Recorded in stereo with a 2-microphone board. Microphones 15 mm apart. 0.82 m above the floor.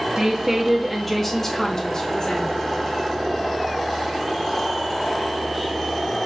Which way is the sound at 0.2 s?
30° right (ahead or behind).